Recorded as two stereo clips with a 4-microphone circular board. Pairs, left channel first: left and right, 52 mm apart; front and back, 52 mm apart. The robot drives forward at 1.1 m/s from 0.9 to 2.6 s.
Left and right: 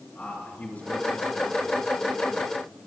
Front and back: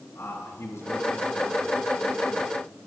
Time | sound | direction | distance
0.1 | a man speaking | 30° left | 5.5 m